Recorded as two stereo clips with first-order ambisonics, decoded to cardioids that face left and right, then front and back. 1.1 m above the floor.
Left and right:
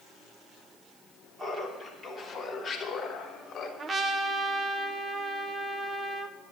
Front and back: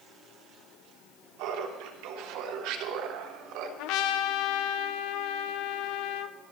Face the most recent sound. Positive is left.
turn(degrees=-20)